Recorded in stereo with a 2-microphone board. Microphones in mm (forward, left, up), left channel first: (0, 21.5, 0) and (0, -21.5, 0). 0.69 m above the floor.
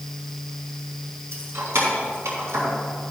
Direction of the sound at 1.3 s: 75° right (ahead or behind).